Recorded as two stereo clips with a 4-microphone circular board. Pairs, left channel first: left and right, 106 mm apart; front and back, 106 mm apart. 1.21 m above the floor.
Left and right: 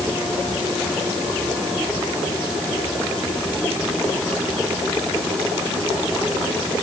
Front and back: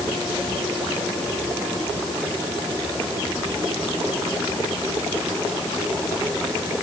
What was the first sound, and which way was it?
Only background noise.